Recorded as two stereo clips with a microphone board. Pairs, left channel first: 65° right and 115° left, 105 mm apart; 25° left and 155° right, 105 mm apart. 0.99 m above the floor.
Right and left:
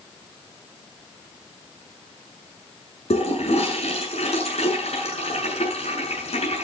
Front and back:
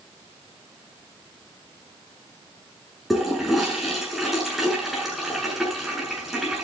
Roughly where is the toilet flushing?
Right.